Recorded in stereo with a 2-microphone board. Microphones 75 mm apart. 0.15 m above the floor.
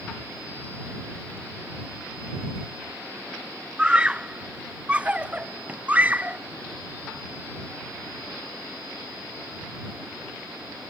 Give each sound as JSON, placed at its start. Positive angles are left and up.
{"t": 3.8, "sound": "a scream", "side_deg": -10}